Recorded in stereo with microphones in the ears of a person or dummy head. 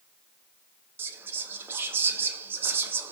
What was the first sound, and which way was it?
Whispering, 15° right (ahead or behind).